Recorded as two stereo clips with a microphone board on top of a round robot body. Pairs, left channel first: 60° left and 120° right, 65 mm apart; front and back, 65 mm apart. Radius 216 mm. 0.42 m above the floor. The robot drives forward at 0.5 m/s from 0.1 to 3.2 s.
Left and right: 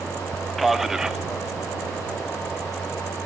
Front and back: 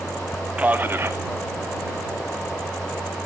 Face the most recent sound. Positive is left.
turn(degrees=175)